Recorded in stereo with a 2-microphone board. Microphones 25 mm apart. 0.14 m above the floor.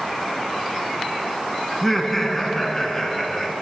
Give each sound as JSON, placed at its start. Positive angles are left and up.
{"t": 1.7, "sound": "laughter", "side_deg": 15, "distance_m": 1.3}